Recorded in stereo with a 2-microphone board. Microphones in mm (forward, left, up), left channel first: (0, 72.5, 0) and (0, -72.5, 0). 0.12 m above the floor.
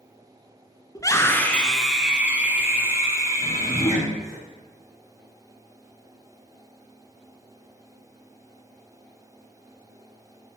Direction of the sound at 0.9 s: 25° left (ahead or behind).